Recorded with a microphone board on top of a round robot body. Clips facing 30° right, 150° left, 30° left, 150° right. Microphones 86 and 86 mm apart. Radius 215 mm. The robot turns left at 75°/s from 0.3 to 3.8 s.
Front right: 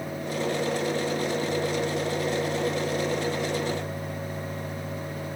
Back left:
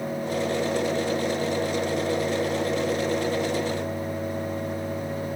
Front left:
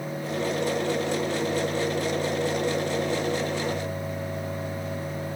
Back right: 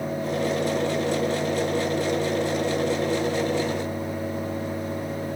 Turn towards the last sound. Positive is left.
No sound to turn to.